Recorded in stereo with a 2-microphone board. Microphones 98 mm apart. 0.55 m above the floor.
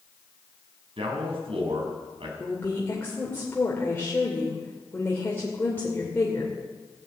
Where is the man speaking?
65° right (ahead or behind), 5 m.